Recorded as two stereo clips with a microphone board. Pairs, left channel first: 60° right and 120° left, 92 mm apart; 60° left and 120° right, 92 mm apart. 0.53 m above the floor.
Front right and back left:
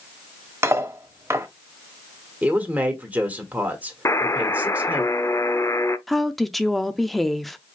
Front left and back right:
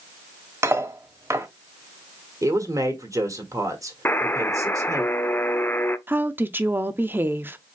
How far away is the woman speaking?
About 0.6 m.